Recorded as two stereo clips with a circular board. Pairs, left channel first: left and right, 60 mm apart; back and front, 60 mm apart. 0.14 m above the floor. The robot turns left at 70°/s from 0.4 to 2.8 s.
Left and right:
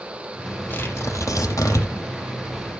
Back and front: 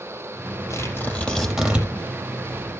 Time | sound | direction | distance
0.7 | tearing paper | 145° left | 4 m